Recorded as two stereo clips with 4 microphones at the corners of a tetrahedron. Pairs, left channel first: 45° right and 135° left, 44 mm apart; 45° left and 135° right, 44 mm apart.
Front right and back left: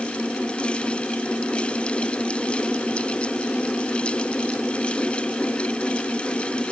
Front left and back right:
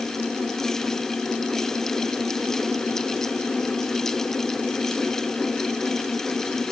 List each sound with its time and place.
Only background noise.